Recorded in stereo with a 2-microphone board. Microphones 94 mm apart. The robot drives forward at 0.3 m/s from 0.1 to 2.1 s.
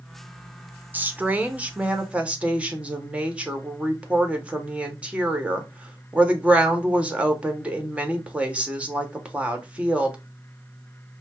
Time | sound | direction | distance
0.9 | a woman speaking | 20° right (ahead or behind) | 0.8 m